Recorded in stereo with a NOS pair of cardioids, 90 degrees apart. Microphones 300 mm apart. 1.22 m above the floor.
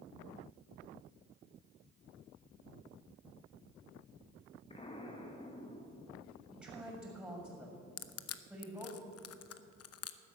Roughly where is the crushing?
Ahead left.